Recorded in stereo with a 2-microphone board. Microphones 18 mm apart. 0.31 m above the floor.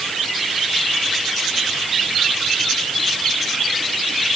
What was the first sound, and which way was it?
Only background noise.